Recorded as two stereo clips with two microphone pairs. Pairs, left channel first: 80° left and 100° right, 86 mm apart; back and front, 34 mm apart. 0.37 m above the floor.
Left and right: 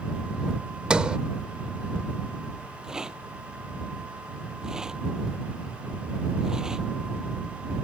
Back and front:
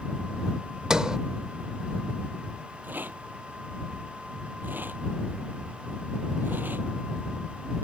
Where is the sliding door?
40° right.